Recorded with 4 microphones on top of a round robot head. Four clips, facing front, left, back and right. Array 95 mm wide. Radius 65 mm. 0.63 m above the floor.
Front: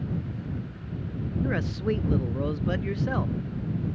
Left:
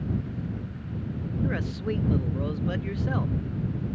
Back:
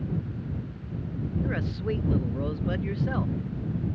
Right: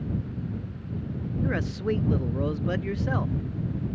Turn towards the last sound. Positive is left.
turn(degrees=-55)